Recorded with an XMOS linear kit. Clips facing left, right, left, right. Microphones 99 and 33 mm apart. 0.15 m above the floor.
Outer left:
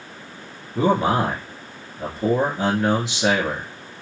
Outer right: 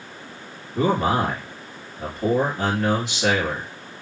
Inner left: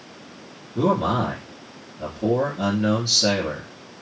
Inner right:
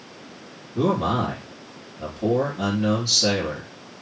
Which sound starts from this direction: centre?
A man speaking, at 0.8 s.